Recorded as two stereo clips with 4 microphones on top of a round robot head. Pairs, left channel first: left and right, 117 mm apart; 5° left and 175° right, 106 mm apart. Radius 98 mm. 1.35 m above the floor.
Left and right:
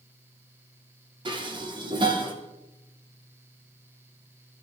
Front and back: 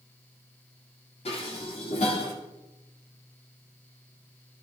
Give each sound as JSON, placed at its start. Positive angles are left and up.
{"t": 1.2, "sound": "dishes clattering", "azimuth_deg": -40, "distance_m": 2.5}